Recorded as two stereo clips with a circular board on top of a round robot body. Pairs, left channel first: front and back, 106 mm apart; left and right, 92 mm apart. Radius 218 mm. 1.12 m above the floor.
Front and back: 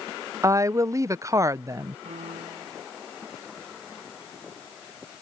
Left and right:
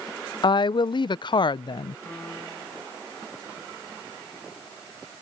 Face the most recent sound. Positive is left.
turn(degrees=165)